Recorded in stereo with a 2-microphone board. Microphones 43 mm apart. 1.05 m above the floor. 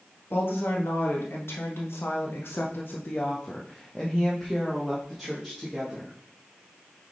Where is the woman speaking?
55° left (ahead or behind), 1.7 m; by 6.1 s 15° right (ahead or behind), 1.9 m.